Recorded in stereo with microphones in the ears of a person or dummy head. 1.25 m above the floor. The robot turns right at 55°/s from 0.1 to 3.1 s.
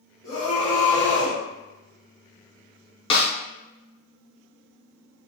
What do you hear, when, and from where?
0.2 s a scream: 130° left, 1.3 m; by 1.4 s 165° right, 1.3 m
3.1 s a snare drum: 30° left (ahead or behind), 0.5 m